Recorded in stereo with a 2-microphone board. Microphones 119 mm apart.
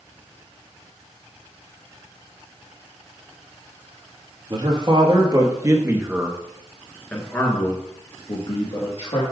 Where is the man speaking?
45° right (ahead or behind), 1.9 m; by 9.2 s 55° left (ahead or behind), 1.9 m.